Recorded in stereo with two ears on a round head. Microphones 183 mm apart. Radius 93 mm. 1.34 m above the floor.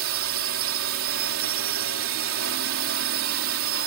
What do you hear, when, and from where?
0.0 s a drone: 75° right (ahead or behind)